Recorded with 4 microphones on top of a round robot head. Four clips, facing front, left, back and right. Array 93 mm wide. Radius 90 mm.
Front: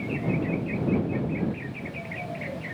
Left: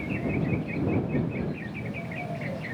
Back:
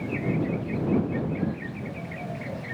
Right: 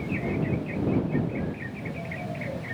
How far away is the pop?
No pop in this recording.